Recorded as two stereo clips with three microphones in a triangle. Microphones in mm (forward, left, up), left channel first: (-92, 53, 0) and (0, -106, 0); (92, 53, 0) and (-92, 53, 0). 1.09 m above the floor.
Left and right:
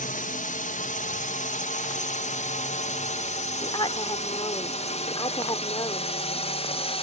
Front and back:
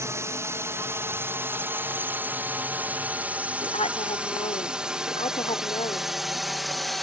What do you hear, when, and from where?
0.0 s a drone: 110° left; by 7.0 s 90° left
3.6 s a woman speaking: 55° left